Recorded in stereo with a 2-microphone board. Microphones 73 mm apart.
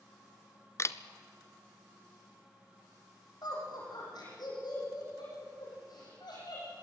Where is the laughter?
70° left (ahead or behind), 8 m.